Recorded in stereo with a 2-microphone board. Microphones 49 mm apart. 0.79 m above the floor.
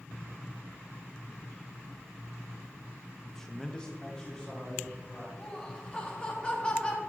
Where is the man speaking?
5° left (ahead or behind), 1.0 m; by 5.3 s 15° left (ahead or behind), 2.5 m.